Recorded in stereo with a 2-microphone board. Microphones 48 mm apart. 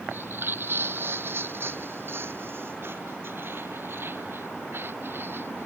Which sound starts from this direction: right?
Footsteps, at 0.1 s.